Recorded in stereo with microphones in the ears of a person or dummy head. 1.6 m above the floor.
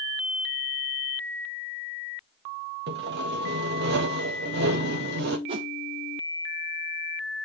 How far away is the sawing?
About 1.5 m.